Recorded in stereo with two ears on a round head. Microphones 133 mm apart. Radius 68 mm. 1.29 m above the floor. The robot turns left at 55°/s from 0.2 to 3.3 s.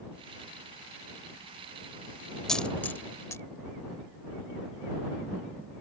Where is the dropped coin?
5° left (ahead or behind); by 3.4 s 20° left (ahead or behind).